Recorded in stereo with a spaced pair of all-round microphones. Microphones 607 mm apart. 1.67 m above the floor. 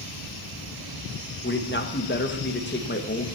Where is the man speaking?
15° left (ahead or behind), 1.6 m.